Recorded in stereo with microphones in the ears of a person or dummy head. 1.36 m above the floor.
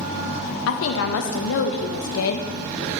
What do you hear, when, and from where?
0.7 s a woman speaking: 75° left (ahead or behind), 0.8 m